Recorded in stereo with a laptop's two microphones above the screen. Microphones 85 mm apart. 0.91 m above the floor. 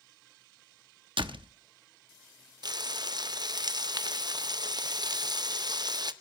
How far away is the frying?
About 0.6 m.